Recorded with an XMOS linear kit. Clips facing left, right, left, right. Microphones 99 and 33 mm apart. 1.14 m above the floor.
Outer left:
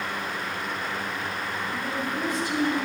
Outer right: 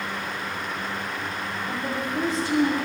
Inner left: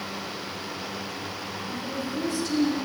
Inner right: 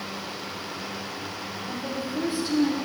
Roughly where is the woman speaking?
Right.